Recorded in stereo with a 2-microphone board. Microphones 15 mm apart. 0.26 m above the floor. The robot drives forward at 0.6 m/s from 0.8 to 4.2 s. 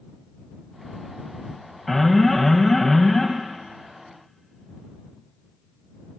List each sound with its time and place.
1.9 s an alarm: 15° left (ahead or behind), 0.7 m